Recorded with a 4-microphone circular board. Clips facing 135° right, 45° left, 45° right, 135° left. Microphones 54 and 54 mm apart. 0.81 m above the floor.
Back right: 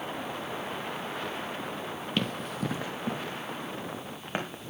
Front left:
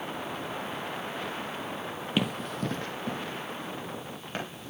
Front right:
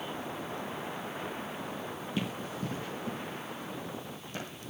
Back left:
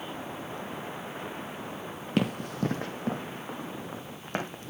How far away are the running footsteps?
About 1.5 m.